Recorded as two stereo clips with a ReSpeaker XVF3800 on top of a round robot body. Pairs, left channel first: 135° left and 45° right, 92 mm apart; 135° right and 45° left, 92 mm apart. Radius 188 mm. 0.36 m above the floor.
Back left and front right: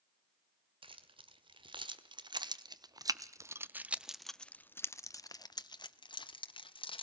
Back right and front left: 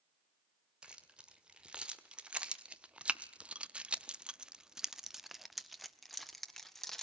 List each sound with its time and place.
0.8 s keys jangling: 35° right, 1.9 m; by 7.0 s 135° left, 1.6 m